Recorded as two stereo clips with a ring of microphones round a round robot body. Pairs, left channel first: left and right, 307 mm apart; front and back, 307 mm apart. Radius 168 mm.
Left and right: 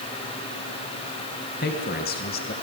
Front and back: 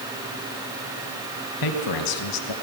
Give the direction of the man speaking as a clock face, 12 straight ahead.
11 o'clock.